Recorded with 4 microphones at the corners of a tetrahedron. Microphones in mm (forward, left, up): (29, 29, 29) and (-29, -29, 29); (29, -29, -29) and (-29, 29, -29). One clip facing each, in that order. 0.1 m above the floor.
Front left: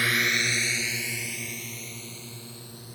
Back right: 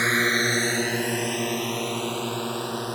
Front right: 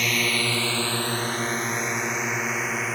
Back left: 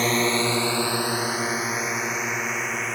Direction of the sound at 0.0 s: 175° left.